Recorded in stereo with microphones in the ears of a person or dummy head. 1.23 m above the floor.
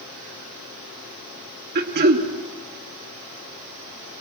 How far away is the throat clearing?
About 2.5 m.